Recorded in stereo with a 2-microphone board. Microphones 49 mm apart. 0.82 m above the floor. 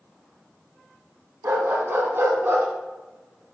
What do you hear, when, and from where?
1.4 s a dog barking: 55° right (ahead or behind), 3 m; by 2.7 s 45° right (ahead or behind), 3.5 m